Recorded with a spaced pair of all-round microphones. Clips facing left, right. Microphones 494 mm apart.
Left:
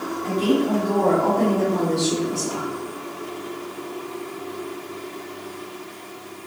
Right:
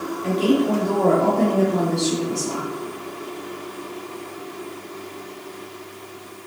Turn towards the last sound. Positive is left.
turn(degrees=-10)  # may be behind; listen again after turning